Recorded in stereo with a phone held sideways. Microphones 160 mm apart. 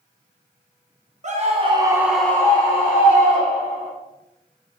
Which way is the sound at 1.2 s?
50° right (ahead or behind).